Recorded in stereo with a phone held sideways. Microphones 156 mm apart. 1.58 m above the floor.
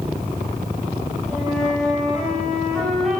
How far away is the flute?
About 3.5 m.